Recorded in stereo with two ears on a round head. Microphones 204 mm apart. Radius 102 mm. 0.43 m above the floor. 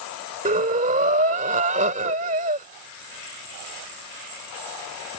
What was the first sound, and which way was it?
Breathing, 35° right (ahead or behind).